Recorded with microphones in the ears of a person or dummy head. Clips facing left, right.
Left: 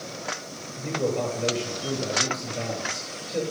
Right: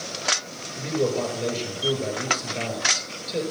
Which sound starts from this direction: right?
A man speaking, at 0.8 s.